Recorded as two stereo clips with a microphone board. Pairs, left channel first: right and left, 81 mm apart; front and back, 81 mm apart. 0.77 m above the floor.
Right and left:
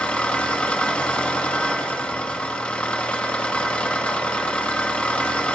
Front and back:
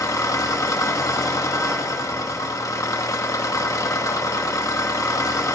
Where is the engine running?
20° right, 0.9 m.